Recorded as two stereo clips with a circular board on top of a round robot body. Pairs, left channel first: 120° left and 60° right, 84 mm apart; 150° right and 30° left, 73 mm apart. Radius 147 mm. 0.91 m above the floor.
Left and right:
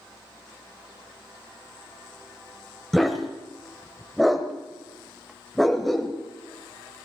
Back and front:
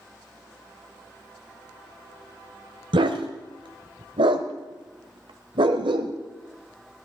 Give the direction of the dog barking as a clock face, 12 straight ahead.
11 o'clock.